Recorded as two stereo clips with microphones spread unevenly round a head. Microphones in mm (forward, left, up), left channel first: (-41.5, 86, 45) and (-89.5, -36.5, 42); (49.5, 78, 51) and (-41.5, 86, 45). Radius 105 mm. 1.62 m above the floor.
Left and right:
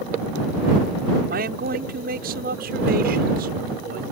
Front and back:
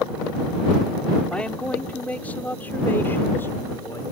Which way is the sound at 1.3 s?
90° right.